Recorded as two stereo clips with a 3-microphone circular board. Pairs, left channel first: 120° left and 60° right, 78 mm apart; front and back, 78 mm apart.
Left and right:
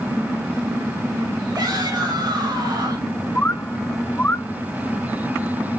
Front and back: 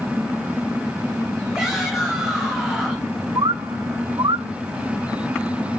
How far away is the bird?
About 0.5 m.